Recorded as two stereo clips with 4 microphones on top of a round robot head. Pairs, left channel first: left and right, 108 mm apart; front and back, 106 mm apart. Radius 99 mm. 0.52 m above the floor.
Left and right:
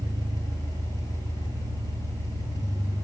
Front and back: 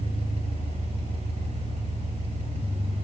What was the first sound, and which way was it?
An engine running, 155° right.